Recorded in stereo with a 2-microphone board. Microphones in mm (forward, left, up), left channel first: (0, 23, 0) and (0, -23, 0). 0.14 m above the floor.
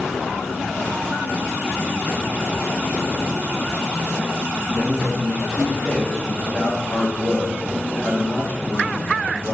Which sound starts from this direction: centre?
A man speaking, at 4.8 s.